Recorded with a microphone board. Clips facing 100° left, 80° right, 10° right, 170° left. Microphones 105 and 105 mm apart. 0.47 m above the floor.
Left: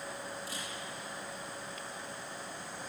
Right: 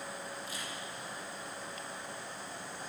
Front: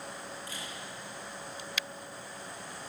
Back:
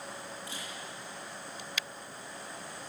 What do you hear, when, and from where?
0.5 s a camera shutter: 105° left, 9 m